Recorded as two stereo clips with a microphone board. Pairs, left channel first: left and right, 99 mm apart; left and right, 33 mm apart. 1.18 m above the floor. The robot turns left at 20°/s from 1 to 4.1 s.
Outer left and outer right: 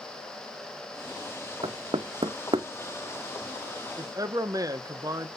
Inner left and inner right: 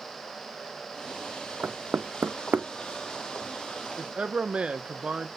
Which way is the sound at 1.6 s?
65° right (ahead or behind).